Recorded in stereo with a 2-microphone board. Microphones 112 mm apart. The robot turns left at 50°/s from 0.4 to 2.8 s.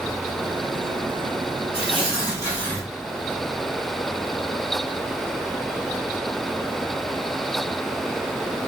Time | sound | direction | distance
1.7 | tearing paper | 65° left | 2 m